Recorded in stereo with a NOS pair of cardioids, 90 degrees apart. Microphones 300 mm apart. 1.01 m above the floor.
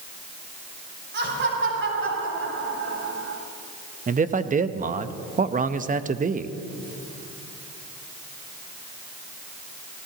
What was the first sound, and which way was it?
Laughter, 40° right.